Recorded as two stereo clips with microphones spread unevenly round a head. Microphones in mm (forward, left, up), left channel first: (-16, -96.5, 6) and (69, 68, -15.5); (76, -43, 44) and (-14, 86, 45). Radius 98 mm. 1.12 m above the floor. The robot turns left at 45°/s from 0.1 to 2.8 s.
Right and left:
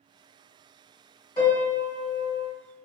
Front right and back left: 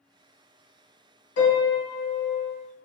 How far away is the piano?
About 1.5 m.